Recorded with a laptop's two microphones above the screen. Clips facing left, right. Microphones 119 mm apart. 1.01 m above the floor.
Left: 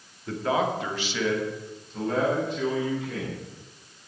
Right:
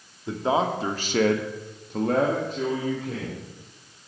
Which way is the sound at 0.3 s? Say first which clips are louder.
Right 2 dB; 20° right (ahead or behind).